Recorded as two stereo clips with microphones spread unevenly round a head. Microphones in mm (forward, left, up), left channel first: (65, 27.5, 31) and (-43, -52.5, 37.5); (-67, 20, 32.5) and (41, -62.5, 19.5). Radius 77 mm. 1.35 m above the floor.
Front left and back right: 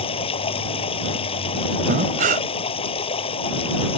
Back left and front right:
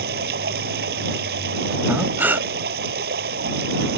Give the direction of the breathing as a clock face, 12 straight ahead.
4 o'clock.